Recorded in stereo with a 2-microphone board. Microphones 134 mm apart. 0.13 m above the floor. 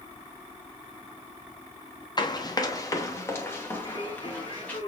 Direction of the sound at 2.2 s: 30° left (ahead or behind).